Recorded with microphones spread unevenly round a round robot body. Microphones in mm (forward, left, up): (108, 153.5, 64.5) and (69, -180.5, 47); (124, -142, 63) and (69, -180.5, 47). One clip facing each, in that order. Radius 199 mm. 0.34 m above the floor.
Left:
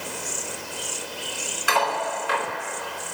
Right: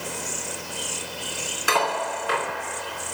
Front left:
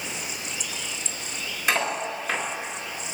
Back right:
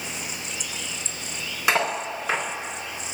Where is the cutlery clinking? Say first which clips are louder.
Even, back right 2 dB; 150° right, 2.5 m.